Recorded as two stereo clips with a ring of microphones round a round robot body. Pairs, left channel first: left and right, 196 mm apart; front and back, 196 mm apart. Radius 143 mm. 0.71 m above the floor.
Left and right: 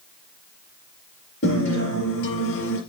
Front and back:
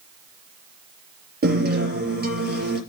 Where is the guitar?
145° left, 5 m.